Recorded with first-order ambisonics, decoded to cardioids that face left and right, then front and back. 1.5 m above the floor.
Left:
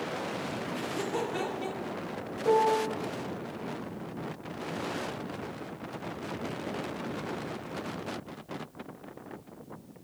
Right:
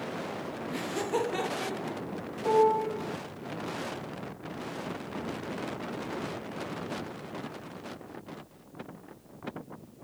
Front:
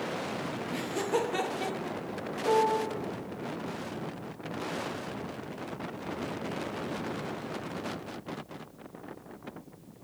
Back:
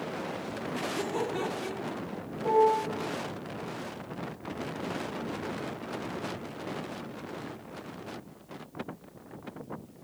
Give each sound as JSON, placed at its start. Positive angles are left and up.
{"t": 0.7, "sound": "laughter", "azimuth_deg": -45, "distance_m": 1.0}
{"t": 2.4, "sound": "a piano", "azimuth_deg": -115, "distance_m": 3.0}